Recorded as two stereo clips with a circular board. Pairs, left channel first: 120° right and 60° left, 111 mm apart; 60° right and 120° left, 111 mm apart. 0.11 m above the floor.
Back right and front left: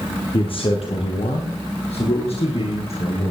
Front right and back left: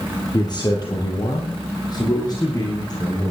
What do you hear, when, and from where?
0.3 s a man speaking: 100° right, 2 m; by 3.3 s 110° right, 5 m